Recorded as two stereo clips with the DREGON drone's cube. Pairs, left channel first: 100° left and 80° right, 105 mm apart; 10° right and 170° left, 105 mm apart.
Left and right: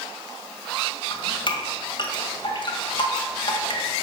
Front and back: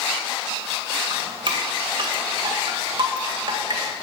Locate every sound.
1.1 s dripping: 130° left, 1.8 m